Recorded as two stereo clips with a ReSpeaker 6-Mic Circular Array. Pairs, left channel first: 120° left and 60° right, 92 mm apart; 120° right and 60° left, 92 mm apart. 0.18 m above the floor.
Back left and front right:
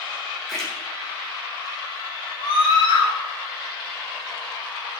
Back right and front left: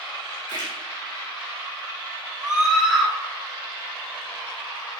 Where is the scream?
150° left, 4 m.